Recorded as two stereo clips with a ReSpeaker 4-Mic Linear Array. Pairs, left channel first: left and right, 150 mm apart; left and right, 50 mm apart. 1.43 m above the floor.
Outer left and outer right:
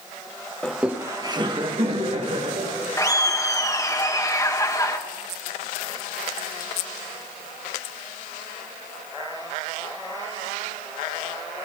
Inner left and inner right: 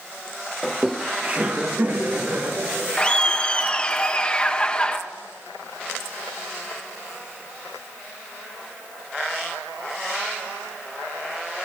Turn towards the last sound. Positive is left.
turn(degrees=20)  # may be behind; listen again after turning